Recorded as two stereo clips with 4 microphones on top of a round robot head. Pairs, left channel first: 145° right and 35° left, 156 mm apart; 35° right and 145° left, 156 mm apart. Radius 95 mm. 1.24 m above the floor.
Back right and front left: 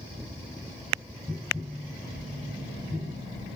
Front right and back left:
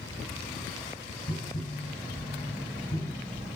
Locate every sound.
1.3 s tapping: 60° right, 2.5 m